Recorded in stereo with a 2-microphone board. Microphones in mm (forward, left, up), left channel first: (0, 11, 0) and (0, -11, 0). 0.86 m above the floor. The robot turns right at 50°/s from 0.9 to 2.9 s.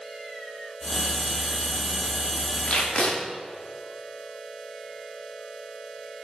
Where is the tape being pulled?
60° left (ahead or behind), 2 m; by 3.2 s 55° left (ahead or behind), 2 m.